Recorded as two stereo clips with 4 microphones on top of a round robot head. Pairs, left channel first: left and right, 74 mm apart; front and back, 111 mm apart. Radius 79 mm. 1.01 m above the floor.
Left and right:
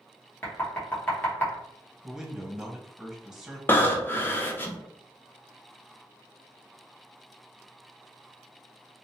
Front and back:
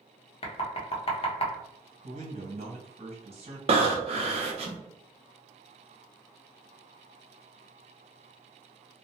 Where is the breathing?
150° left, 0.6 m.